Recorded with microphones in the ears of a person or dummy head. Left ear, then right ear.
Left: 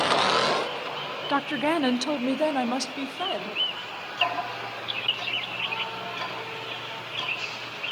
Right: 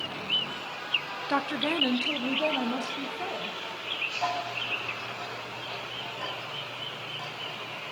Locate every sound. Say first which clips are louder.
1.3 s a woman speaking: left 3 dB; 10° left (ahead or behind), 1.0 m; by 3.6 s 80° left, 2.5 m
4.2 s ticking: left 3 dB; 75° left (ahead or behind), 9 m